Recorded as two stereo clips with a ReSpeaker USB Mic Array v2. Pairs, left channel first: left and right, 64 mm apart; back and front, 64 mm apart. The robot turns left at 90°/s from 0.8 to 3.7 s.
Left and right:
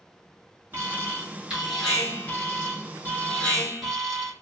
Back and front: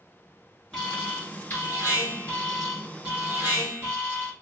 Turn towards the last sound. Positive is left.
turn(degrees=0)